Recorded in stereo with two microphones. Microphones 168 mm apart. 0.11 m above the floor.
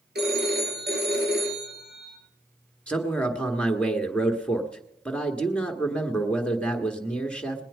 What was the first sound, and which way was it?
A phone ringing, 75° right (ahead or behind).